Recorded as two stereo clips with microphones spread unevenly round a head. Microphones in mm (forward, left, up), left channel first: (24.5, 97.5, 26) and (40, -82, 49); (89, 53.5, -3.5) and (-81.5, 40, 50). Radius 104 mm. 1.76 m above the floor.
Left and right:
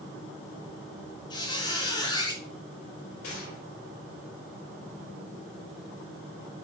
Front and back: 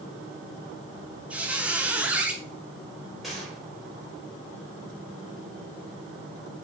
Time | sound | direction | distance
1.3 | a squeak | 160° left | 1.1 m
3.2 | a gunshot | 100° left | 3.5 m